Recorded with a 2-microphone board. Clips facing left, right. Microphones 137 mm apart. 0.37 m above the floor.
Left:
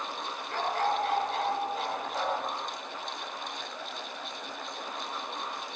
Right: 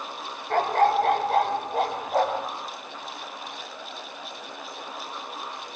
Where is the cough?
I don't hear a cough.